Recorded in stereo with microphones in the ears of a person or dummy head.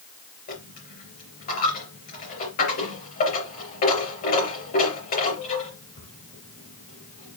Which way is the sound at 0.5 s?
50° left (ahead or behind).